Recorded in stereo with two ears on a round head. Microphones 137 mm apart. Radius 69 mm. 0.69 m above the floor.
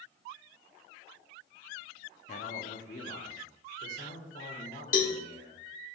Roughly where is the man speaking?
Left.